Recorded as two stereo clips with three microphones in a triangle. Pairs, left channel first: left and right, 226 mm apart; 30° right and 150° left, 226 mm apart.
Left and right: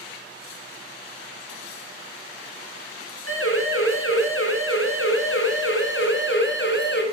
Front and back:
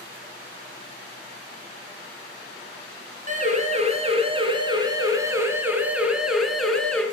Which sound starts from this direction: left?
A siren, at 3.3 s.